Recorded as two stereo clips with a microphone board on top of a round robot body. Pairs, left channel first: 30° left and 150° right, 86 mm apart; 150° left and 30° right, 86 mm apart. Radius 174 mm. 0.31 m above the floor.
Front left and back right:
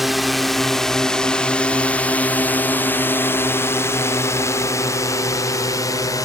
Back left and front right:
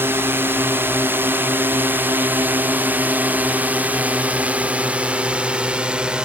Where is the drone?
65° right; by 6.3 s 45° left.